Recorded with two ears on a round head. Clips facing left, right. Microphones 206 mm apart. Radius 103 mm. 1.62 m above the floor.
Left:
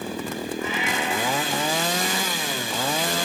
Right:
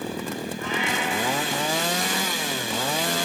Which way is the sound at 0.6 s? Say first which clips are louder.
Right 1 dB; 5° left (ahead or behind).